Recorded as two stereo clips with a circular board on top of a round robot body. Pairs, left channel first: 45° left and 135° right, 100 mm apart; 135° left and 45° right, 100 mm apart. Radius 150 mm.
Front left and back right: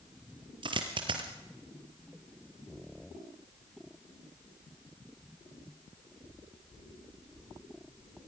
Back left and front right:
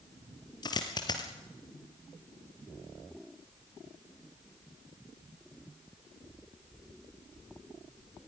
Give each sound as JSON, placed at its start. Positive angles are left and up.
{"t": 0.6, "sound": "a dropped coin", "azimuth_deg": -175, "distance_m": 2.5}